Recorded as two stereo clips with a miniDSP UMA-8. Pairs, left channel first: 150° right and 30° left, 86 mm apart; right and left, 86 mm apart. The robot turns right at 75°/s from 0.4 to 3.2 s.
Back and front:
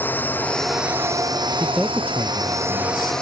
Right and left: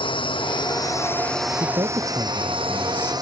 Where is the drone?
80° right; by 3.2 s 130° left.